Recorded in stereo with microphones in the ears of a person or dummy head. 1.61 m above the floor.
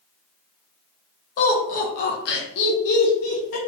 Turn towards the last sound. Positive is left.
turn(degrees=70)  # may be behind; listen again after turning